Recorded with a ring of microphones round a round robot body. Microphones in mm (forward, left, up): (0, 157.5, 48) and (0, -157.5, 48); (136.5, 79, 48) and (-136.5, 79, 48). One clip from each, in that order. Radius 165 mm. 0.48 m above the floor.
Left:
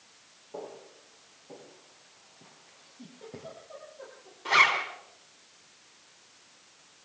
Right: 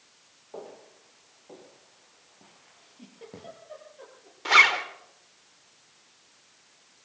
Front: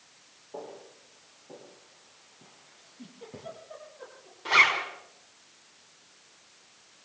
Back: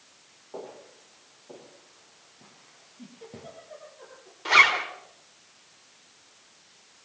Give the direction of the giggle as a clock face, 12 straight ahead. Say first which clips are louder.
Even, back 1 dB; 3 o'clock.